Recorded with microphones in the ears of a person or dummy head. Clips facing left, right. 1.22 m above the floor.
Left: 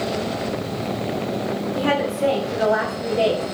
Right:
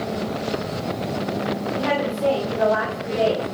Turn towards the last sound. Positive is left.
turn(degrees=5)  # may be behind; listen again after turning